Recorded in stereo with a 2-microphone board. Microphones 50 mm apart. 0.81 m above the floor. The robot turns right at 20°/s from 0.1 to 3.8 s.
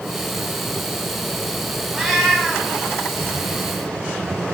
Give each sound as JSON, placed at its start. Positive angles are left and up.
{"t": 1.9, "sound": "a cat meowing", "side_deg": -10, "distance_m": 2.0}